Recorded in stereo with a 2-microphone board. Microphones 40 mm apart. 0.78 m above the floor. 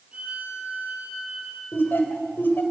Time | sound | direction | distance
0.1 | a violin | 35° right (ahead or behind) | 4.5 m
1.7 | laughter | 60° left (ahead or behind) | 3 m